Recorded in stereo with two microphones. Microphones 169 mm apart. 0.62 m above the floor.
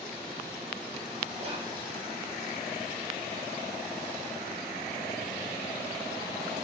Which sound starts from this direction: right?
Whispering, at 1.4 s.